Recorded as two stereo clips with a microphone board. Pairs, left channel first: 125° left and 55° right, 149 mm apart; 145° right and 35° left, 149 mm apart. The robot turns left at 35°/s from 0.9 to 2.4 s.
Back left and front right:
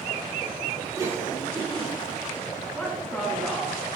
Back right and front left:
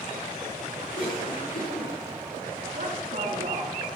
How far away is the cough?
About 9.5 m.